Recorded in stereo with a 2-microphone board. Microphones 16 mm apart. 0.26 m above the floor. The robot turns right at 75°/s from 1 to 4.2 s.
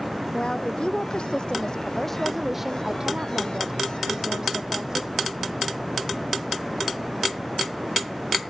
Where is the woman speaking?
70° left; by 5.1 s 50° right.